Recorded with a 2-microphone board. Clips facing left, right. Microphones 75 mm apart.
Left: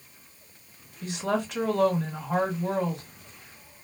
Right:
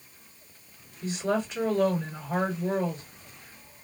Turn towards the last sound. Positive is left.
turn(degrees=65)  # may be behind; listen again after turning